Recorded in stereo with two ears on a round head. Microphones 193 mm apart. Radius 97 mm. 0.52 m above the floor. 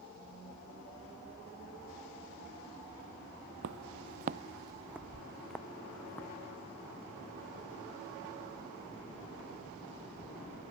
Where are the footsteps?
60° right (ahead or behind); by 6.3 s 10° left (ahead or behind).